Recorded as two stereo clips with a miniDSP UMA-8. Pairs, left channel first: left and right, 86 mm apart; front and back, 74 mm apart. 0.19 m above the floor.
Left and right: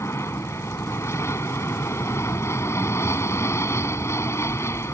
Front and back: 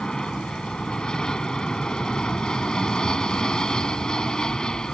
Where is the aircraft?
70° left.